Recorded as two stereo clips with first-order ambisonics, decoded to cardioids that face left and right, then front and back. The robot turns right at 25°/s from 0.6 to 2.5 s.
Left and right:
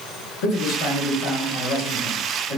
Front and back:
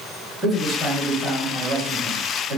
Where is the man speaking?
90° left, 1.9 m; by 2.6 s 140° left, 1.9 m.